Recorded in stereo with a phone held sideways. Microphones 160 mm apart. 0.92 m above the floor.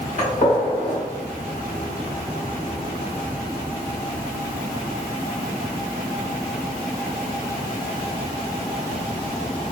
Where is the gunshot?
55° left (ahead or behind), 1.4 m.